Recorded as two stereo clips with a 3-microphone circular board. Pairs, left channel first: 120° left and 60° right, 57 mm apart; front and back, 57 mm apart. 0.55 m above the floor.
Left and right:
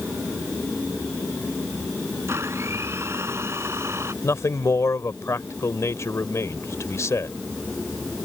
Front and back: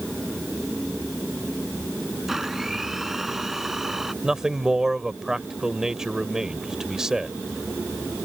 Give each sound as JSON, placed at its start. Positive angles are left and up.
{"t": 2.3, "sound": "a blender", "azimuth_deg": -95}
{"t": 4.2, "sound": "a man speaking", "azimuth_deg": 105}